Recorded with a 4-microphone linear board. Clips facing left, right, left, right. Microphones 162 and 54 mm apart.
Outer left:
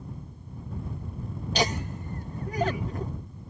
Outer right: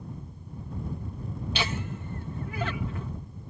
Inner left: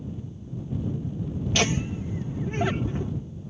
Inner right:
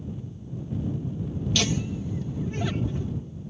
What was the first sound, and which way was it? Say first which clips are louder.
Laughter: outer left 6 dB, inner left 3 dB; 40° left (ahead or behind).